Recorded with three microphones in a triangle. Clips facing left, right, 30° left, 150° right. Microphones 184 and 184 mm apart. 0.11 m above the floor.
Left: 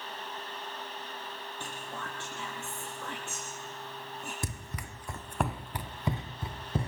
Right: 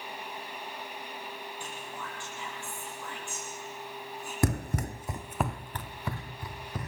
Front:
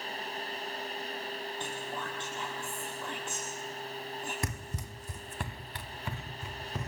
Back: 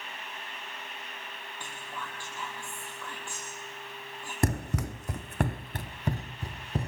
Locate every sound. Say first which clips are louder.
1.6 s whispering: even, front 5 dB; 95° left, 3 m
4.4 s running footsteps: right 11 dB, back 10 dB; 110° right, 0.5 m; by 6.9 s 155° left, 1.6 m